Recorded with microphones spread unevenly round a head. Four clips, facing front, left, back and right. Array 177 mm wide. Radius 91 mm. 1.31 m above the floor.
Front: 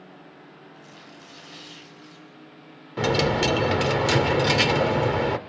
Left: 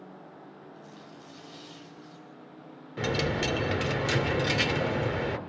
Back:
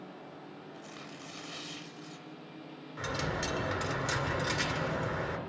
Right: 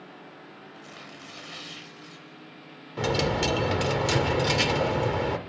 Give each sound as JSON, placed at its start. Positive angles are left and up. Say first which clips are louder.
{"t": 0.7, "sound": "tearing paper", "louder": "right 2 dB, even", "azimuth_deg": -100, "distance_m": 6.5}
{"t": 3.0, "sound": "a dropped coin", "louder": "right 3 dB, front 13 dB", "azimuth_deg": -5, "distance_m": 2.0}